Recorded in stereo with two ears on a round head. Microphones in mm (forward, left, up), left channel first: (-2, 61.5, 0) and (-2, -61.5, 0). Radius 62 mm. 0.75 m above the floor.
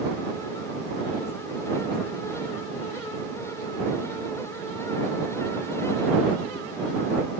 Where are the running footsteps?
I don't hear running footsteps.